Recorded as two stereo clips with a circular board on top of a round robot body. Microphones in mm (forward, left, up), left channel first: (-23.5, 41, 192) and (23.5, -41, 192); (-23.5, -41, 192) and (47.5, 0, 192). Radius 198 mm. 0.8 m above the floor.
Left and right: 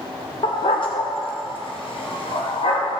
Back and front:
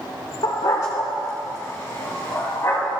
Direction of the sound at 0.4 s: 160° left.